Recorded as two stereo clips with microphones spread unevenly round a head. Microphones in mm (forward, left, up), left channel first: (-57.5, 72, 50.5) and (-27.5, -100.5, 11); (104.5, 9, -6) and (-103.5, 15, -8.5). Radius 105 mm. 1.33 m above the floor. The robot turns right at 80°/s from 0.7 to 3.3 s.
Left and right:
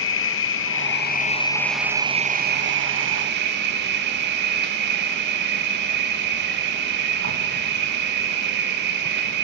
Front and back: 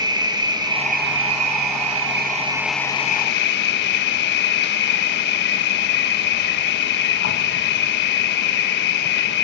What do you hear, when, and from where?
0.0 s an insect: 105° left, 1.5 m; by 9.4 s 45° right, 1.5 m